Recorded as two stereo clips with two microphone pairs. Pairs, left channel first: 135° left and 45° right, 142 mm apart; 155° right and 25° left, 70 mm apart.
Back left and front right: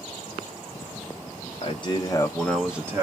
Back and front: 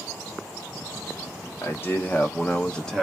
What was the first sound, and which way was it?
A man speaking, 165° left.